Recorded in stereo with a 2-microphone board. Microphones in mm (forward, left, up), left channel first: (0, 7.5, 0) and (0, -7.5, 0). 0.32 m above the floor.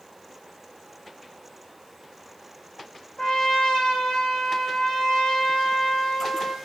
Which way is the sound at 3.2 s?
60° left (ahead or behind).